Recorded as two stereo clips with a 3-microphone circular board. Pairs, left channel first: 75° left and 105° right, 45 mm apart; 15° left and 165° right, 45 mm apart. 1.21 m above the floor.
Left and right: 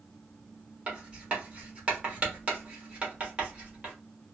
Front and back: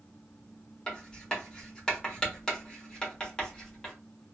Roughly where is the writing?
Ahead right.